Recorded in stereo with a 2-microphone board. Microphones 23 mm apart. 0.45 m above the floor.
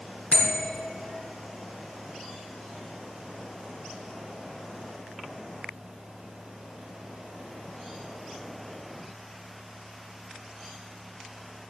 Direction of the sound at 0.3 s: 80° left.